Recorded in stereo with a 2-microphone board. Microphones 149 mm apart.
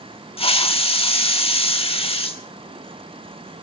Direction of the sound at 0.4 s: 40° left (ahead or behind).